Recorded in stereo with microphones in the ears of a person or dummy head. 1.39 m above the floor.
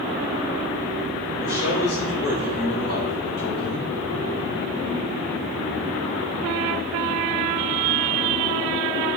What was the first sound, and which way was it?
A man speaking, 50° left (ahead or behind).